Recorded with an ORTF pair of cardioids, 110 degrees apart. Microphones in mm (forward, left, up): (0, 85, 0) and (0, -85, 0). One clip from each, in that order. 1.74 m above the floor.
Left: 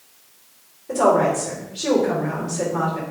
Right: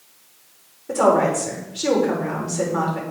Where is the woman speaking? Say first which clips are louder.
Even; 30° right, 5 m.